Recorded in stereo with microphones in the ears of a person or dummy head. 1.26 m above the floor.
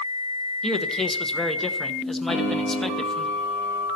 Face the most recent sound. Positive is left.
turn(degrees=-35)  # may be behind; listen again after turning